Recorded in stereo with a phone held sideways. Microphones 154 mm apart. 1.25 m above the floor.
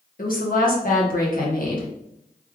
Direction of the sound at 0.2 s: 65° left (ahead or behind).